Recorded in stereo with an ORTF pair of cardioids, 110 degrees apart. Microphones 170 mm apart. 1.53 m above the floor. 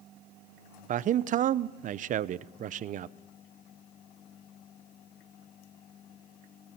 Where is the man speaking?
50° right, 0.8 m.